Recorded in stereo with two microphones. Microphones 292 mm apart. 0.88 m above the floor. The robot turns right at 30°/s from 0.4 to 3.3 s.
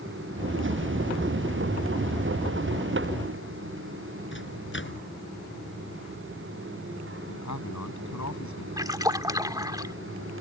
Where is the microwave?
40° left (ahead or behind).